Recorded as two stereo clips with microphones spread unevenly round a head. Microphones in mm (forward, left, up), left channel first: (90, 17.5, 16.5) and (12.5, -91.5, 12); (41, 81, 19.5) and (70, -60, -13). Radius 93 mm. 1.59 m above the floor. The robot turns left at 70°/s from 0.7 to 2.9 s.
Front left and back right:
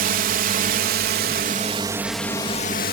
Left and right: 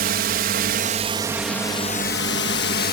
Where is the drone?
115° right; by 2.9 s 90° left.